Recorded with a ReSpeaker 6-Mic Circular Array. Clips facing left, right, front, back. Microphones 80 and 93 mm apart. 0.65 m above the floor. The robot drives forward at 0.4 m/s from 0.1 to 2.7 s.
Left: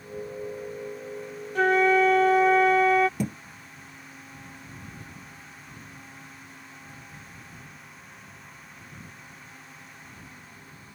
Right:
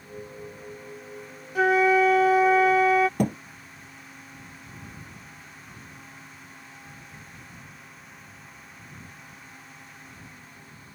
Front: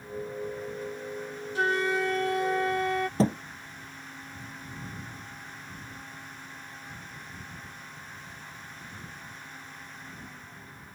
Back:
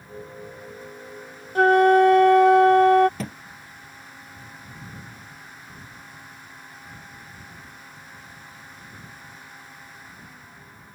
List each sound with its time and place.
1.6 s a flute: 175° right
3.2 s a thud: 60° right